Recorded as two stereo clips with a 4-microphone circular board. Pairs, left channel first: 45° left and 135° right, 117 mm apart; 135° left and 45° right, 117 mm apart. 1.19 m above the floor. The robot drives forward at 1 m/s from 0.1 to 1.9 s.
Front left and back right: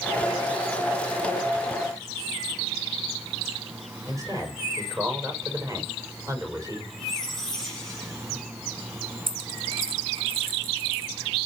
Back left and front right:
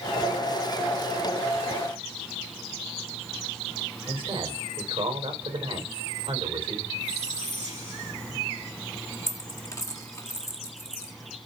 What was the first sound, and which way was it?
A man speaking, 75° right.